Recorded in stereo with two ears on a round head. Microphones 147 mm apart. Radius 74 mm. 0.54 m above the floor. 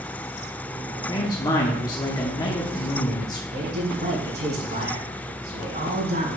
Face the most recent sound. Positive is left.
turn(degrees=-70)  # may be behind; listen again after turning